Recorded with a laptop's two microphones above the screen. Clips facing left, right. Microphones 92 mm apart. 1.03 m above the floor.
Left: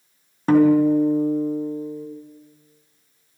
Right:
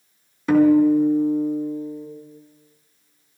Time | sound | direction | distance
0.5 | a guitar | 40° left (ahead or behind) | 3 m